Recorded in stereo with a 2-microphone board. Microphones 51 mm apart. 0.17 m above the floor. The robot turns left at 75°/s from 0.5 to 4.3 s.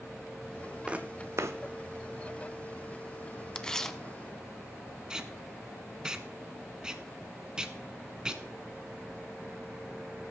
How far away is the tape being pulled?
About 0.8 m.